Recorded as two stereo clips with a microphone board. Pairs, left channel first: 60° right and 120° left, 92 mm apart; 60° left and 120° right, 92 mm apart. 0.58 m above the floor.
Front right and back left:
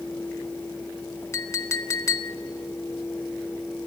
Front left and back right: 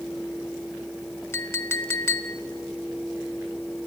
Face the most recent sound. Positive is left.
turn(degrees=0)